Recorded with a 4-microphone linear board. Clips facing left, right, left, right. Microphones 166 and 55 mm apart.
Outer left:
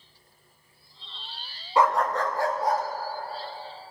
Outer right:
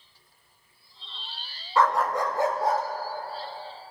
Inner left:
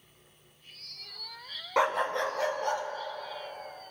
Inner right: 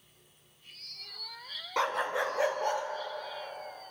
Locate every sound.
1.8 s a dog barking: 20° left (ahead or behind), 0.6 m; by 2.8 s 25° right (ahead or behind), 2 m